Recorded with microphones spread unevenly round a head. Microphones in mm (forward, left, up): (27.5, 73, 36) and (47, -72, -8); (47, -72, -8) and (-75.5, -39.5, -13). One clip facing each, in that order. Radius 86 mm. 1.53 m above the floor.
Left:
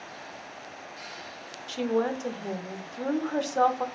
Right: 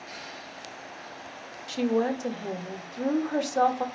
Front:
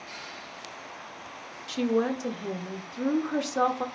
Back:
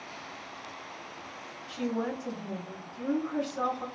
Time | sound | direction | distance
1.7 | a woman speaking | 5° right | 0.7 m